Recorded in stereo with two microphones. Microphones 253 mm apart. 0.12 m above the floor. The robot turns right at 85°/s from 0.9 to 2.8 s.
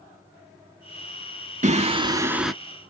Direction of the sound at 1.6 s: 30° right (ahead or behind).